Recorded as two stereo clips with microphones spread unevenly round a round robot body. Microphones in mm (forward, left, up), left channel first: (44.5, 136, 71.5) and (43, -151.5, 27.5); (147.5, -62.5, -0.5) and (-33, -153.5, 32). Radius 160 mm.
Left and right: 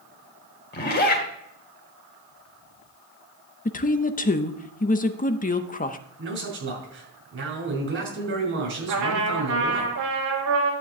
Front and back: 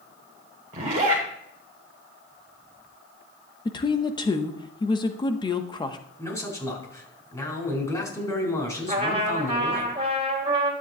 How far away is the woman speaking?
About 0.8 m.